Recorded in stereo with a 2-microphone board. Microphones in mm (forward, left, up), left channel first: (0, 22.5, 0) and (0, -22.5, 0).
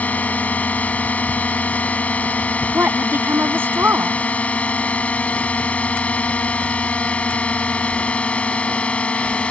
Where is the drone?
35° left (ahead or behind); by 9.5 s 25° left (ahead or behind).